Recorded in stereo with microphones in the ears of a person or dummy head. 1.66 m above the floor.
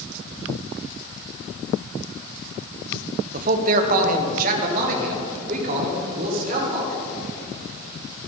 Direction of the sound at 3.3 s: 40° right (ahead or behind).